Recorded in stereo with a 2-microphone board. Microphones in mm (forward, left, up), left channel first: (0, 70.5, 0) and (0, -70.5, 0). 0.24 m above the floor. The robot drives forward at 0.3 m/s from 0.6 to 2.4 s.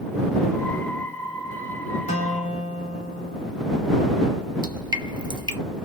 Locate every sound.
2.1 s a guitar: 50° left (ahead or behind), 1.1 m
4.6 s dripping: 30° right (ahead or behind), 0.6 m